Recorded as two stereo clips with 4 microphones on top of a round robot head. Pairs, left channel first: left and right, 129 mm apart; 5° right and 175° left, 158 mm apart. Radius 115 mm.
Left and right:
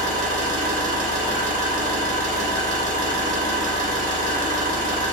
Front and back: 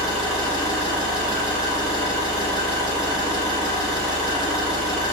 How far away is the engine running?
About 1.2 m.